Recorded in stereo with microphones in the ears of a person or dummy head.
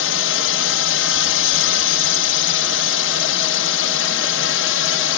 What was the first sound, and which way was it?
A drone, 60° left (ahead or behind).